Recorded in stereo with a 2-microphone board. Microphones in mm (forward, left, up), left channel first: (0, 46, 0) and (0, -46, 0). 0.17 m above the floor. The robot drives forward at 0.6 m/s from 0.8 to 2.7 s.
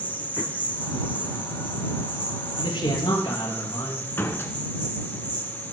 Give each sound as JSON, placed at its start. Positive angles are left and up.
{"t": 0.0, "sound": "an insect", "side_deg": -15, "distance_m": 2.5}
{"t": 2.6, "sound": "a man speaking", "side_deg": 65, "distance_m": 3.5}
{"t": 4.2, "sound": "a door slam", "side_deg": 25, "distance_m": 1.2}